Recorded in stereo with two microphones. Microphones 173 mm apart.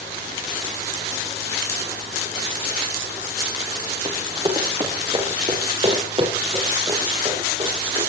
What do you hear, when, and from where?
4.0 s running footsteps: 25° right (ahead or behind), 5 m; by 8.0 s 35° right (ahead or behind), 9.5 m